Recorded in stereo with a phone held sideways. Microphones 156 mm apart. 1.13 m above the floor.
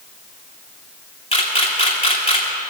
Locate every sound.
1.3 s a camera shutter: 40° left (ahead or behind), 3 m